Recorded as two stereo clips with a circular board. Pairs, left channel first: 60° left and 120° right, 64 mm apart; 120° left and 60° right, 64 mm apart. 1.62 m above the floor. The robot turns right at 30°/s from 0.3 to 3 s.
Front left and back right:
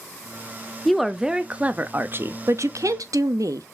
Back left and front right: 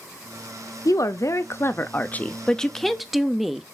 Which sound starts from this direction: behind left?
A woman speaking, at 0.8 s.